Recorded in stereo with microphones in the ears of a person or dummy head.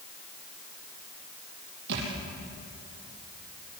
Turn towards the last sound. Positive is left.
turn(degrees=-55)  # may be behind; listen again after turning